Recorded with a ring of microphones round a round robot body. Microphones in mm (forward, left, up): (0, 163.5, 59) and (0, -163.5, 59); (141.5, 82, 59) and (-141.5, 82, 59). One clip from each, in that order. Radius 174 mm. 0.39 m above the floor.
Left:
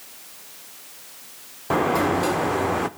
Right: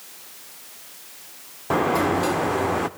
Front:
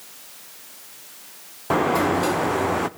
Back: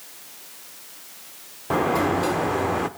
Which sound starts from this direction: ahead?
A sliding door, at 1.7 s.